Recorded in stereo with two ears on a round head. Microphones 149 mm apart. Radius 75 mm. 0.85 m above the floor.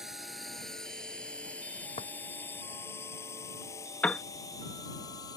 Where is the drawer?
35° left (ahead or behind).